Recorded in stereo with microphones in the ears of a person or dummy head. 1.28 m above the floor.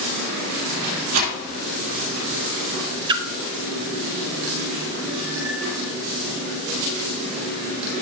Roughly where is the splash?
Right.